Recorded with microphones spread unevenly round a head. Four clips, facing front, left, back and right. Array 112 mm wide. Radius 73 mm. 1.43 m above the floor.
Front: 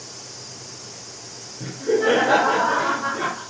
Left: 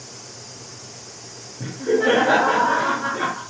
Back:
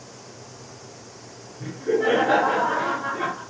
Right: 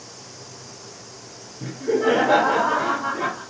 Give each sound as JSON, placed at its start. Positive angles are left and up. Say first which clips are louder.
{"t": 1.6, "sound": "laughter", "louder": "left 1 dB, front 2 dB", "azimuth_deg": 75, "distance_m": 7.0}